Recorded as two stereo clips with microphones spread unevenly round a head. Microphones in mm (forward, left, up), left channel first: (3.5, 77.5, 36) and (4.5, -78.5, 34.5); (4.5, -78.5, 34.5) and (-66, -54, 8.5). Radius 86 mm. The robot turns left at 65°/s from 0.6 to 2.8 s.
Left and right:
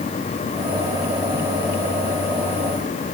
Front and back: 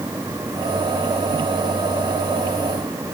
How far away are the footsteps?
I don't hear footsteps.